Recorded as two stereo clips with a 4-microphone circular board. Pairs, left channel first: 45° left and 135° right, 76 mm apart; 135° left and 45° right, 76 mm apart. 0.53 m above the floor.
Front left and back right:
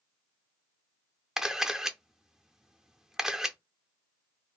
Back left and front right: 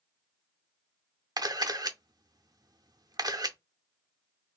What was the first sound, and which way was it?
A camera shutter, 50° right.